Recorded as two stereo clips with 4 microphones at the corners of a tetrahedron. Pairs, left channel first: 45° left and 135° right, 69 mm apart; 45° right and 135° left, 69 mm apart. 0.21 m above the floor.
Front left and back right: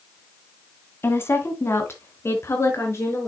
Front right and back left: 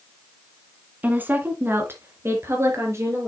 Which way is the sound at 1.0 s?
80° left.